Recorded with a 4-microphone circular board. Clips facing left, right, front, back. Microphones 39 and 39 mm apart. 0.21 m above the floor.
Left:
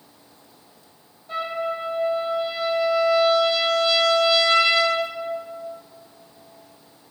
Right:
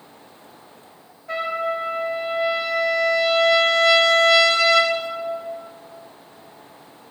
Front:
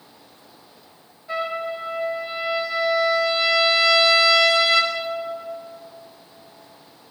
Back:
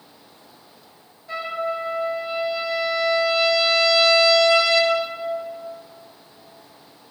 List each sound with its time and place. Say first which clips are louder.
1.3 s a trumpet: right 2 dB, even; 80° right, 2.5 m